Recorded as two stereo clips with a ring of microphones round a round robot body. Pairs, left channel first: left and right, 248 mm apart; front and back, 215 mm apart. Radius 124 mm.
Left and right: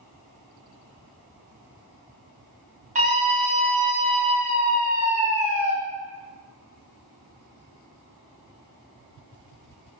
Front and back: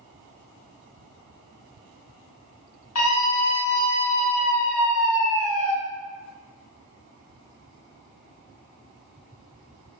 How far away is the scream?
About 5.5 m.